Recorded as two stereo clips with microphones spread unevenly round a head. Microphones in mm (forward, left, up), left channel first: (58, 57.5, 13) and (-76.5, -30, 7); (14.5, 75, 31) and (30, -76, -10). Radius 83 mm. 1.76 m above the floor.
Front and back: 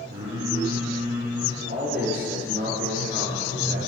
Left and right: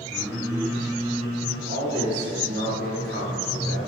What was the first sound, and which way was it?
Singing, 175° right.